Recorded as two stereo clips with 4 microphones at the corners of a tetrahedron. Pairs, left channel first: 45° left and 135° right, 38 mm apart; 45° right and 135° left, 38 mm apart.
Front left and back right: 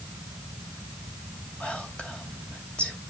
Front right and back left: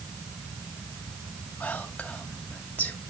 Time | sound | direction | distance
1.6 | whispering | 15° right | 2 m